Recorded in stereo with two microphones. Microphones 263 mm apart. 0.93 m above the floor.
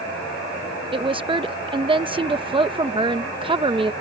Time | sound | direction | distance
0.9 | a woman speaking | 20° right (ahead or behind) | ?